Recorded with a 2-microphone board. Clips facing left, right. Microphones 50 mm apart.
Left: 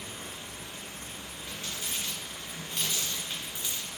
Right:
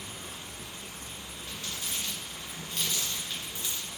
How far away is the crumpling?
About 1.7 m.